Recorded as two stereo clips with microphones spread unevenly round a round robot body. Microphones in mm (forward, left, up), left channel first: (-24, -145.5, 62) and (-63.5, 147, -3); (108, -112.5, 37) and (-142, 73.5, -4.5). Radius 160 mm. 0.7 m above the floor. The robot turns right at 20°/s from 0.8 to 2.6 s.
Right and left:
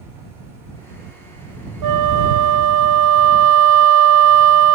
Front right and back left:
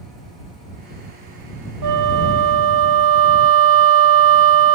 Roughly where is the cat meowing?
No cat meowing in this recording.